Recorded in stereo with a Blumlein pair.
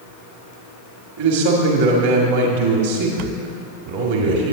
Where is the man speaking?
50° right, 1.6 m.